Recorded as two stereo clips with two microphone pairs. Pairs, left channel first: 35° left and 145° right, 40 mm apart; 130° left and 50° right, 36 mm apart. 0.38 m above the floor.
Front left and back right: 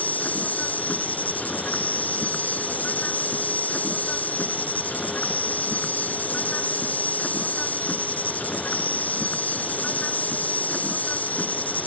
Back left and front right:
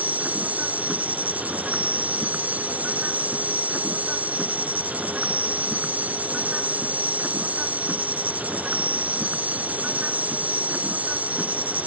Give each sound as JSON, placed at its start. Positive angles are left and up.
{"t": 0.0, "sound": "an insect", "azimuth_deg": -10}